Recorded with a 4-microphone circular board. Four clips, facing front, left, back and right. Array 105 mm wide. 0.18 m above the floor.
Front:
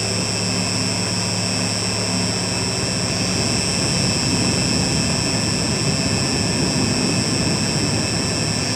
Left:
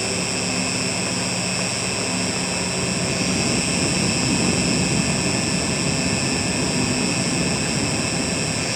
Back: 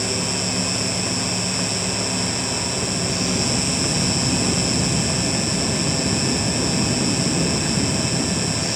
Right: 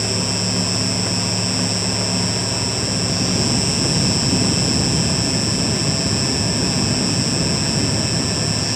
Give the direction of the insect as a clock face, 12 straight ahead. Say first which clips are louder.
Right 2 dB, front 1 dB; 9 o'clock.